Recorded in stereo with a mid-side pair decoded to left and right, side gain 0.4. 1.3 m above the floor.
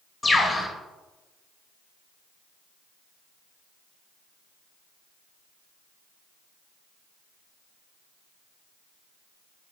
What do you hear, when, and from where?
0.2 s a bird: 20° left, 2.5 m